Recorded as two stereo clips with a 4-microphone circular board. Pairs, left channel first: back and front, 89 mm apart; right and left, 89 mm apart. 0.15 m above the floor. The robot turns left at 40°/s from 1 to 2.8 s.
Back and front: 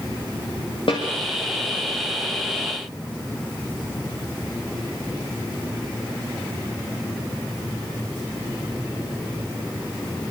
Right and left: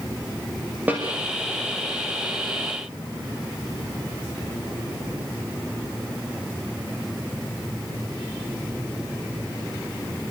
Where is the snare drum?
160° left, 7.5 m.